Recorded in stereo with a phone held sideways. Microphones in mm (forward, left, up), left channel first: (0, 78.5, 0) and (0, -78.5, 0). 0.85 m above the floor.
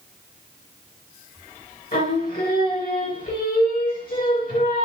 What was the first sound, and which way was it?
Singing, 65° left (ahead or behind).